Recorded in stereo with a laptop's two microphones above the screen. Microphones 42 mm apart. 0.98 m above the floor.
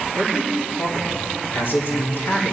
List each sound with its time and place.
0.1 s a man speaking: 60° left (ahead or behind), 2.5 m